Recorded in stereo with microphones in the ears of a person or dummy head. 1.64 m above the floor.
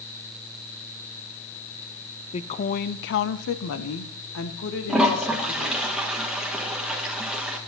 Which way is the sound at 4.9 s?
5° right (ahead or behind).